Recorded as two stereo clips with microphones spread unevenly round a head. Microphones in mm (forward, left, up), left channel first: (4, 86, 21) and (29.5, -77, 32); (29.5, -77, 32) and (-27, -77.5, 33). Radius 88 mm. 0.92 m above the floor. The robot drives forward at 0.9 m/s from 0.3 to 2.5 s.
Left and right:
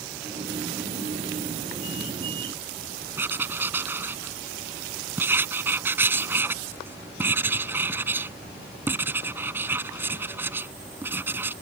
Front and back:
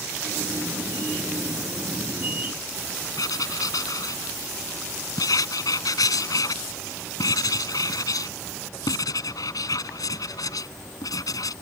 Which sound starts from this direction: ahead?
Writing, at 3.2 s.